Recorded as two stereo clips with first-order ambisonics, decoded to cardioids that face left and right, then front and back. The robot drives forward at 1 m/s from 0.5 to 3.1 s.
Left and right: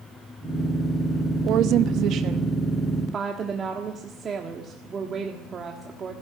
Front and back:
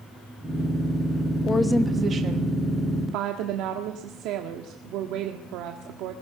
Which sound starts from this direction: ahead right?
A woman speaking, at 1.4 s.